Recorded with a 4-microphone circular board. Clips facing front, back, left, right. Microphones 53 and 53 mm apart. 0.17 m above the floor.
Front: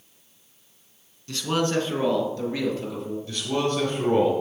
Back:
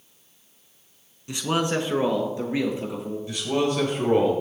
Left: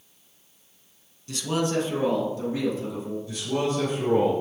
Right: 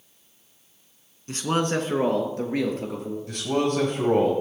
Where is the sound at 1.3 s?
115° right, 1.4 m.